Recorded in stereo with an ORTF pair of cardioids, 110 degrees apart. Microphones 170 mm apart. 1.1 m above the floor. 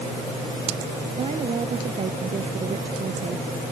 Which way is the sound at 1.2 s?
35° right.